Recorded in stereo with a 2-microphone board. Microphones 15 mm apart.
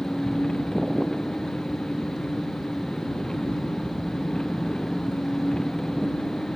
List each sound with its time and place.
0.0 s an engine running: 45° left (ahead or behind)